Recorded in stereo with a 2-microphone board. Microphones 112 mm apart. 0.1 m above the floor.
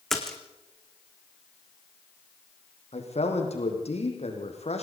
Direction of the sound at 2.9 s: 70° left (ahead or behind).